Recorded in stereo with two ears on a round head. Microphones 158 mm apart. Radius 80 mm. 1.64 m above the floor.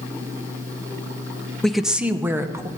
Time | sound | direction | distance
1.6 | a woman speaking | 5° left (ahead or behind) | 0.6 m